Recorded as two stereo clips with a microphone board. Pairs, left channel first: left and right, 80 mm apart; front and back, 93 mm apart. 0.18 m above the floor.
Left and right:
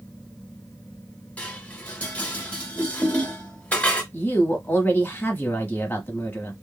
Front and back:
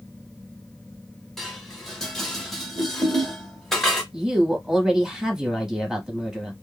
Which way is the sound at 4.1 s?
105° left.